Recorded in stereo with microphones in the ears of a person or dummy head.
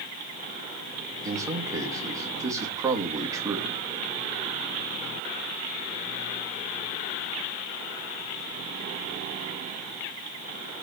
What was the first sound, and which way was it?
A man speaking, 25° right (ahead or behind).